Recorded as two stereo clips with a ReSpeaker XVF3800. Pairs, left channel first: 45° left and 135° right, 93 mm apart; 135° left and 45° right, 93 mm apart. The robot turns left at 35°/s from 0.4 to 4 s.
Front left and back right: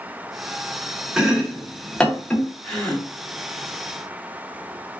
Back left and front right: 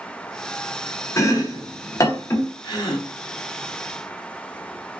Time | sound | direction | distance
1.2 | chopping | 150° left | 0.6 m
2.6 | a gasp | 130° left | 1.0 m